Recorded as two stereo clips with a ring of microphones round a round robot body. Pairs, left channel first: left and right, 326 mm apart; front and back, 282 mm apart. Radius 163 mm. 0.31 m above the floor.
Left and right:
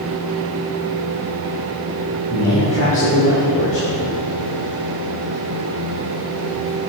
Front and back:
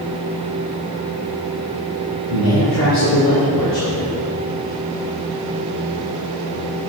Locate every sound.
2.3 s a man speaking: 20° left, 3.5 m